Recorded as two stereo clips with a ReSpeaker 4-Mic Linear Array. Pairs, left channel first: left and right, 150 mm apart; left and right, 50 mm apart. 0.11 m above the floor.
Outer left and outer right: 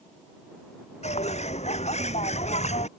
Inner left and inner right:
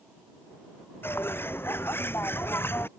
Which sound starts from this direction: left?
A bird, at 1.0 s.